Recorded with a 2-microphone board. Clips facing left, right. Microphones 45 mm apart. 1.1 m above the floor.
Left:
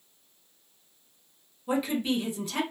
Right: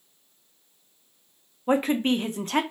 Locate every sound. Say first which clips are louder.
1.7 s a woman speaking: right 5 dB; 50° right (ahead or behind), 0.5 m